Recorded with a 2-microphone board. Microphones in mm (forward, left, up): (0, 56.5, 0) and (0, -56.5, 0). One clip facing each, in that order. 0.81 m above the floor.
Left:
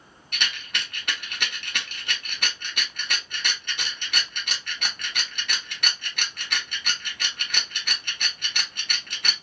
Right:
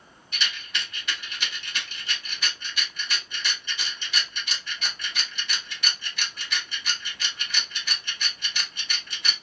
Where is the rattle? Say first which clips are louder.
Left 1 dB; 60° left (ahead or behind), 0.9 m.